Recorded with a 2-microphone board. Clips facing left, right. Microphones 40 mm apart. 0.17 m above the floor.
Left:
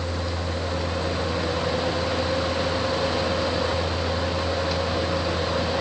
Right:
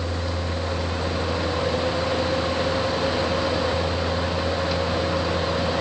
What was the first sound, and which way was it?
Only background noise.